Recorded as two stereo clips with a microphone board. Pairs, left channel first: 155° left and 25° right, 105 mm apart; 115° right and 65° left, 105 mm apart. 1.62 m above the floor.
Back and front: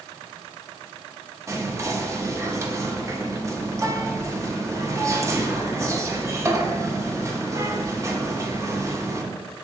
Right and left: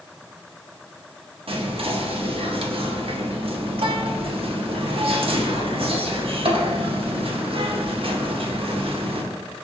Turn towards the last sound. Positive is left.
turn(degrees=40)